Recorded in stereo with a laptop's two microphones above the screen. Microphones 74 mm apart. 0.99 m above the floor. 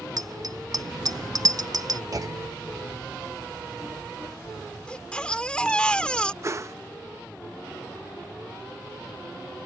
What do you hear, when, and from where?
0.2 s a bicycle bell: 55° right (ahead or behind)
2.1 s a clunk: 50° right (ahead or behind)
4.9 s a baby crying: 15° left (ahead or behind)
6.4 s a whoosh: 40° right (ahead or behind)